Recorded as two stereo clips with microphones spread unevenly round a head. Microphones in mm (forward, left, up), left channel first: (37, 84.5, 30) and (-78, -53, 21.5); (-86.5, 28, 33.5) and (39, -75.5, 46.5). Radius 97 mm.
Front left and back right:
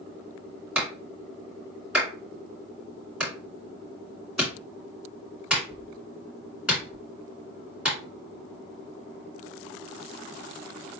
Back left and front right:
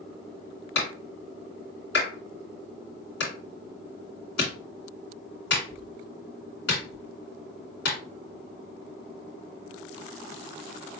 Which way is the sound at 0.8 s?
145° left.